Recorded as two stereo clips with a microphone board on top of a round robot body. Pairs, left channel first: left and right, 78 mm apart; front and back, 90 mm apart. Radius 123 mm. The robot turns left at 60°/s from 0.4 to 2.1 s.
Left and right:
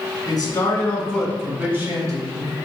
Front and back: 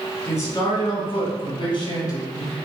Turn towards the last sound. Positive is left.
turn(degrees=-40)